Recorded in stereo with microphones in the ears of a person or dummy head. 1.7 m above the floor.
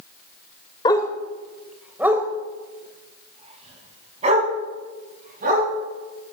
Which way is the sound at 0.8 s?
25° left (ahead or behind).